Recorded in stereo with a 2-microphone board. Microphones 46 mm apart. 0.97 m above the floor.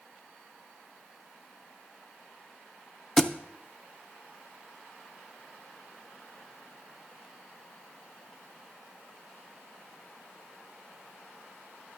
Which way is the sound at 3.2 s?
10° left (ahead or behind).